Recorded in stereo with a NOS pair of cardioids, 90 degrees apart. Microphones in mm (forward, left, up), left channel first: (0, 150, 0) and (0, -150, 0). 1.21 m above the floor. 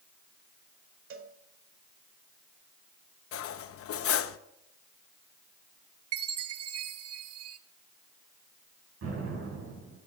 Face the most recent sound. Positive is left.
turn(degrees=-50)